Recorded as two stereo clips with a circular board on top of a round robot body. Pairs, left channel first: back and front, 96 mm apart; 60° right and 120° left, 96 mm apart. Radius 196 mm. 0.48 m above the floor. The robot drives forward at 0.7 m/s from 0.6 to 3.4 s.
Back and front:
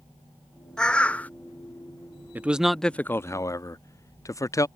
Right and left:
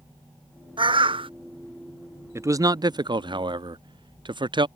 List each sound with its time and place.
0.8 s a bird: 100° left; by 1.3 s 105° left
2.4 s a man speaking: 65° left; by 4.7 s 130° left